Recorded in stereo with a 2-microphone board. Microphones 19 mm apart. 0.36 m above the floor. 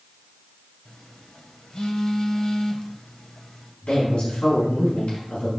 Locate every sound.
0.8 s a phone buzzing: 35° left (ahead or behind), 1.2 m
3.8 s a man speaking: 70° left (ahead or behind), 3.5 m